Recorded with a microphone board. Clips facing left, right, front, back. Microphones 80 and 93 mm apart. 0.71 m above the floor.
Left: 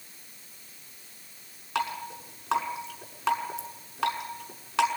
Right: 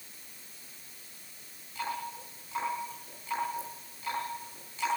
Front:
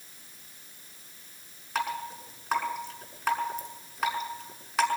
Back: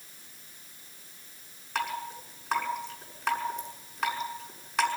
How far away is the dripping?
About 6 m.